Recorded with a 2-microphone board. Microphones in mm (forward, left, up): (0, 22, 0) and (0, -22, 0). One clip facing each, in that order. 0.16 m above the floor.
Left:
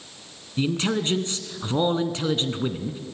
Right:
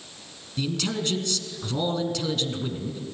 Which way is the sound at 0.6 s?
30° left (ahead or behind).